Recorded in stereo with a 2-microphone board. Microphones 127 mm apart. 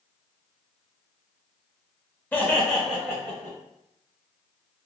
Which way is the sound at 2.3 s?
15° left (ahead or behind).